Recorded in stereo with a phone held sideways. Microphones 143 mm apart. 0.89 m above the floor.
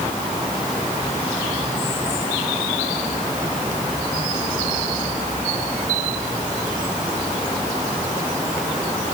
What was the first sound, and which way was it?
Only background noise.